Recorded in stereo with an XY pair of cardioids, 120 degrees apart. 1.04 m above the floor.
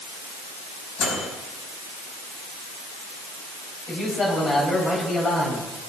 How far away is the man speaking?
About 7 m.